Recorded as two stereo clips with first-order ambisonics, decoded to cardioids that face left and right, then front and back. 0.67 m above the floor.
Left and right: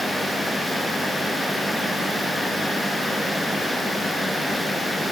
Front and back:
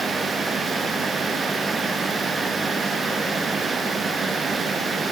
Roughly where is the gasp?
I don't hear a gasp.